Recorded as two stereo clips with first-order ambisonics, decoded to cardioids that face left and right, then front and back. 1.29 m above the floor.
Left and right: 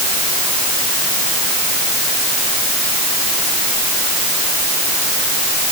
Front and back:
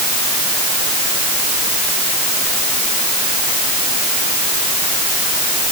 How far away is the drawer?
No drawer in this recording.